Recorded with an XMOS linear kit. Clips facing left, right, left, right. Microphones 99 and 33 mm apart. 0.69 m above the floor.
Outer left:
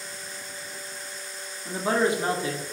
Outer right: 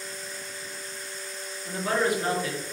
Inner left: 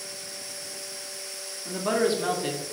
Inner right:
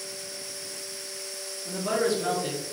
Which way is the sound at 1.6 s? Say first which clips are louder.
Outer left 2 dB, inner left 2 dB; 25° left (ahead or behind).